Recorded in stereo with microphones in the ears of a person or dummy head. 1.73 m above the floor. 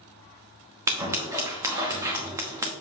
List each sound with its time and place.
0.9 s scissors: 20° right (ahead or behind), 1.0 m